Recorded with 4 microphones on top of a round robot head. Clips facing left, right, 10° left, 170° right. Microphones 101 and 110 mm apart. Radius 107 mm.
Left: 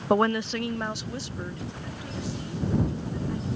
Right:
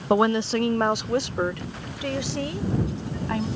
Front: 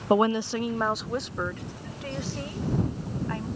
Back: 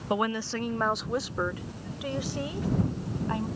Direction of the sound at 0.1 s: Straight ahead.